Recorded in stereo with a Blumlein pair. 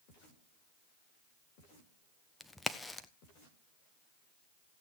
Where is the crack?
5° left, 0.9 m.